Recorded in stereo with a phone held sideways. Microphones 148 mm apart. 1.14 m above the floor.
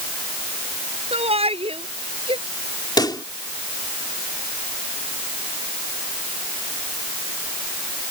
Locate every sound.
1.1 s a shout: 45° right (ahead or behind); by 2.4 s 40° right (ahead or behind)
3.0 s a pop: 30° left (ahead or behind)